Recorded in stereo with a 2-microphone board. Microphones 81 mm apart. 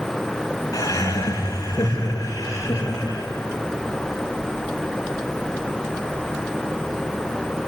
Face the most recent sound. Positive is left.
turn(degrees=40)  # may be behind; listen again after turning